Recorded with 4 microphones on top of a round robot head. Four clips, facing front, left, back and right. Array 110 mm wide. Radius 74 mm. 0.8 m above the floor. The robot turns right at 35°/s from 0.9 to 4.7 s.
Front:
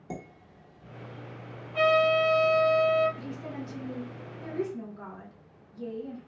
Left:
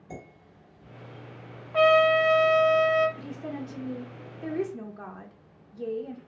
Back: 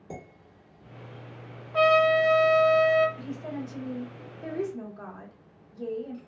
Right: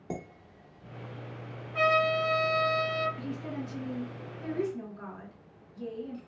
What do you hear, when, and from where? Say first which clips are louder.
0.1 s dishes clattering: right 4 dB, front 2 dB; 75° right, 1.3 m
1.7 s a trumpet: left 7 dB, back 2 dB; 110° left, 0.6 m; by 3.1 s 160° left, 0.6 m
3.2 s a woman speaking: left 1 dB, back 2 dB; 50° left, 1.0 m; by 6.2 s 105° left, 1.0 m